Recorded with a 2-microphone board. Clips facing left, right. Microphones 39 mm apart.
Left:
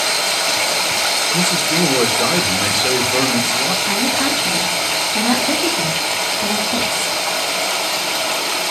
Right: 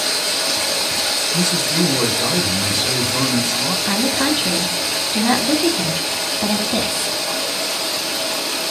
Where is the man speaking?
50° left (ahead or behind), 1.6 m.